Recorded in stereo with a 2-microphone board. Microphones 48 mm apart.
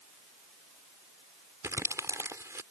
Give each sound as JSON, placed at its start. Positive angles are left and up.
{"t": 1.6, "sound": "crumpling", "side_deg": -80}